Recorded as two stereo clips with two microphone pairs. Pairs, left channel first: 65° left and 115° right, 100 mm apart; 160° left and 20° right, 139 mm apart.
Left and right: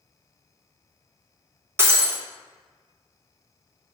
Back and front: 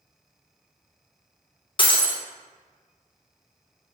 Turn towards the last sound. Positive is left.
turn(degrees=-175)